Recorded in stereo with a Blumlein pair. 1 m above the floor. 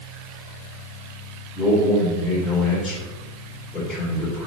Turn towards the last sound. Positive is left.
turn(degrees=20)